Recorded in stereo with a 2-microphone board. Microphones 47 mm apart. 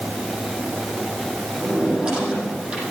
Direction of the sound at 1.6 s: 20° right (ahead or behind).